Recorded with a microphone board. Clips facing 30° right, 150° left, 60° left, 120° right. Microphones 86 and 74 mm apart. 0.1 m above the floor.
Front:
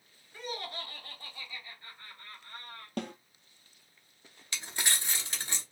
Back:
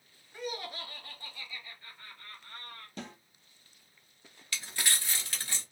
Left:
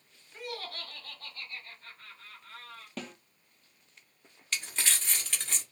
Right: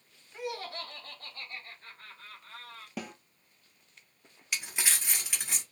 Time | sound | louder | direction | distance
0.3 | laughter | back 1 dB, right 3 dB | 175° right | 1.1 m
3.0 | a snare drum | front 7 dB, right 2 dB | 45° right | 0.6 m
4.5 | crumpling | even, even | 60° right | 1.1 m